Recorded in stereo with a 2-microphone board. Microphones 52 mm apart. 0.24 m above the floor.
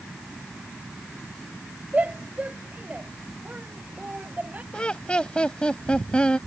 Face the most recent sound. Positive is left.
turn(degrees=20)  # may be behind; listen again after turning